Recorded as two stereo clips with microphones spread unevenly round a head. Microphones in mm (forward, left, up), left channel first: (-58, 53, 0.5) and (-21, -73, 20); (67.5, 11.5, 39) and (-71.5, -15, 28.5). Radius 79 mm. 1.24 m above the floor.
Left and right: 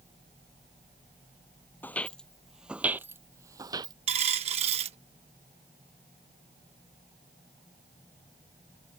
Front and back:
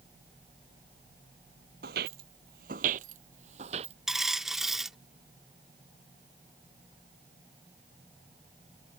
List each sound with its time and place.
1.8 s footsteps: 175° right; by 4.0 s 120° right
4.1 s a dropped coin: 80° right